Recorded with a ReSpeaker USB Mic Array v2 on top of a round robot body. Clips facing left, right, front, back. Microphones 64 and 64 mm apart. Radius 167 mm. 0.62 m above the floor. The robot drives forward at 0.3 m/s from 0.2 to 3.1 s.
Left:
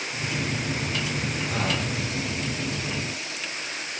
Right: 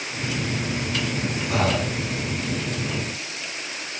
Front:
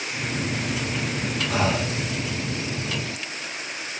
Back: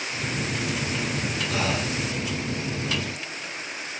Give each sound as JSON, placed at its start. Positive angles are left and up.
{"t": 1.5, "sound": "breathing", "azimuth_deg": -65, "distance_m": 0.9}